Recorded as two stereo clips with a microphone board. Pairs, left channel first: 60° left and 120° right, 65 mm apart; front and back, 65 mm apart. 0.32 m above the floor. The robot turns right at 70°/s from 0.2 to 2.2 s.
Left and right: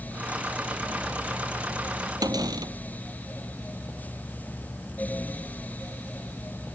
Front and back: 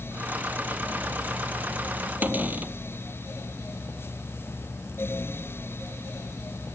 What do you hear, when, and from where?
2.2 s a cupboard door: 115° right